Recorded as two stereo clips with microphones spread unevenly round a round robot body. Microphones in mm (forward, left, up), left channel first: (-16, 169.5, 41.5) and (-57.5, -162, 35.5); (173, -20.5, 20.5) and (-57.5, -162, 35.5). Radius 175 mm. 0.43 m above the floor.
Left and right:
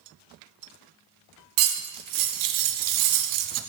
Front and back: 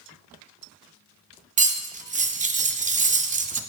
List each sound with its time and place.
1.6 s cutlery clinking: 85° right, 0.5 m